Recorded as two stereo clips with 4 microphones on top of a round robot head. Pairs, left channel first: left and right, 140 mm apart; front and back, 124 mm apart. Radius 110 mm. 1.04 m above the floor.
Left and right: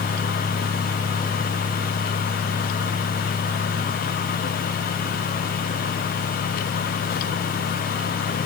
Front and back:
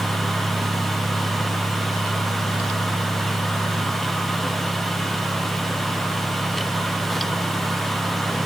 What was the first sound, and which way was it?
Only background noise.